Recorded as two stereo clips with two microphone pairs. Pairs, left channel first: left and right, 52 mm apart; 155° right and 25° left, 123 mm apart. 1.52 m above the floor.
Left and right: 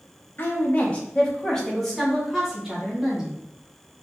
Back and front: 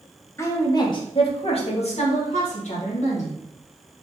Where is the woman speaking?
135° left, 0.9 m; by 3.4 s 170° right, 1.9 m.